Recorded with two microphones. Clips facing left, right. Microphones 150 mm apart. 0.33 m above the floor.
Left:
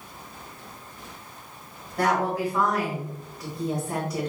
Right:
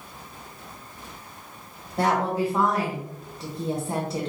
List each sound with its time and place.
2.0 s a woman speaking: 25° right (ahead or behind), 1.1 m